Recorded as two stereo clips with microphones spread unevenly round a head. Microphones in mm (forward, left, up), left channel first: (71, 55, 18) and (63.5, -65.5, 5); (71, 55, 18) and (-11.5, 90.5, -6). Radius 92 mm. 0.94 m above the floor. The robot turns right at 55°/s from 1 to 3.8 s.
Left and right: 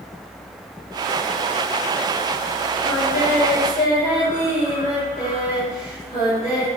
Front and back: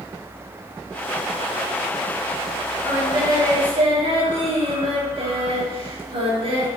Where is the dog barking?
No dog barking in this recording.